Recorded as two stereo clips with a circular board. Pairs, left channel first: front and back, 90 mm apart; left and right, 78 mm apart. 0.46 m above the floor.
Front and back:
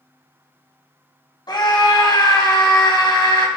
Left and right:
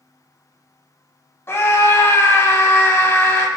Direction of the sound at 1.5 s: 35° left.